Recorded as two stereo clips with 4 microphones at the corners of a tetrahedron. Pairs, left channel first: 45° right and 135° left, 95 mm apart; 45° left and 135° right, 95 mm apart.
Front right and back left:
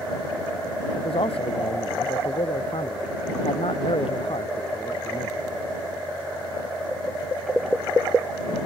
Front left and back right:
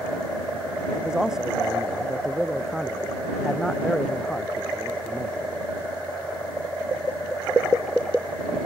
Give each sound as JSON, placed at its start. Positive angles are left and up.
{"t": 0.9, "sound": "a man speaking", "azimuth_deg": -55}